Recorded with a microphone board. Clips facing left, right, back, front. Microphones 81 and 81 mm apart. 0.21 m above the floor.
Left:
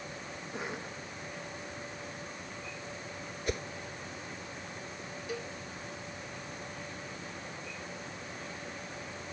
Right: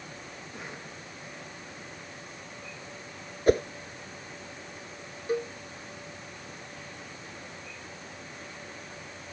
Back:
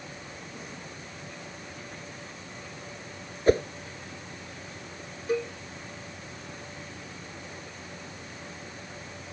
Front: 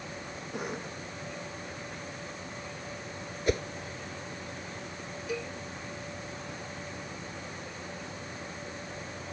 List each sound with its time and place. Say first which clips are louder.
0.5 s a cough: left 5 dB, front 6 dB; 20° left
3.5 s a whoosh: right 14 dB, back 8 dB; 130° right
5.3 s a cowbell: right 10 dB, back 8 dB; 135° right